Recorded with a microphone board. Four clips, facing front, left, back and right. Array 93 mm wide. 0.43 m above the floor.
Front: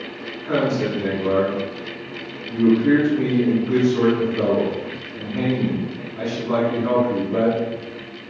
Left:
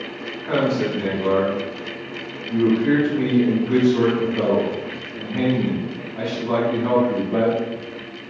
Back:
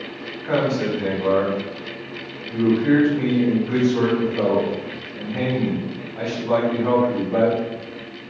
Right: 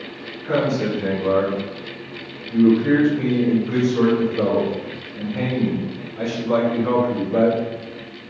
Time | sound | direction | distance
0.4 | a man speaking | 145° left | 2.5 m